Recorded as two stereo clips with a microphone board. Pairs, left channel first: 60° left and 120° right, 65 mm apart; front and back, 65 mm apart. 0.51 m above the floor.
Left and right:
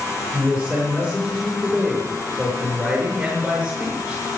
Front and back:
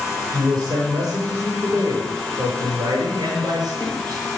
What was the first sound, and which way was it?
A man speaking, 145° left.